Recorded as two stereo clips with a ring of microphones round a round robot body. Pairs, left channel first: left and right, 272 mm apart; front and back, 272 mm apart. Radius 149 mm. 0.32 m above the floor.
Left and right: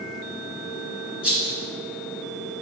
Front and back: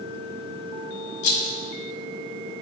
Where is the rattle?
5° right, 1.2 m.